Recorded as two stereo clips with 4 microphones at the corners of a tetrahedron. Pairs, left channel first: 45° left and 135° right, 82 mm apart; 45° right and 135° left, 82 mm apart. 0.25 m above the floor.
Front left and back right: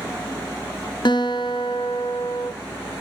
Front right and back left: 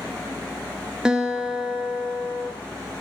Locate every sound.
1.1 s a guitar: 55° left, 2.5 m